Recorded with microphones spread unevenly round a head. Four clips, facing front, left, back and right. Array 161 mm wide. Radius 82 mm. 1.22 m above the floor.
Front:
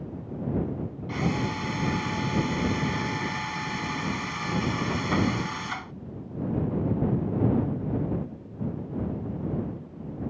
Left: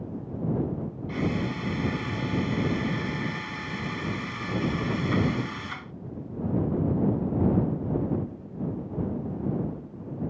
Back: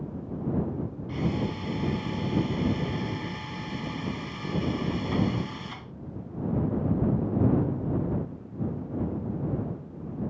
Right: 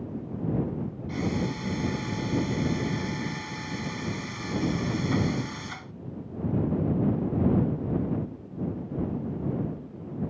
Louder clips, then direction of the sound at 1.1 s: Left 1 dB, front 2 dB; 10° left.